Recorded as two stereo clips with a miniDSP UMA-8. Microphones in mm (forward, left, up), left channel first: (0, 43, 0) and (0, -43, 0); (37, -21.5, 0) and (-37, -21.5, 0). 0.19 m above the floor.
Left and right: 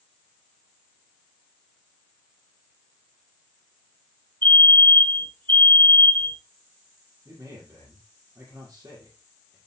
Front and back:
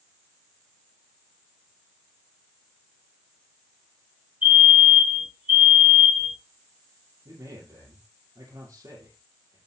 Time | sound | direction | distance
4.4 | a fire alarm | 115° right | 7.5 m
7.2 | a man speaking | 135° right | 6.5 m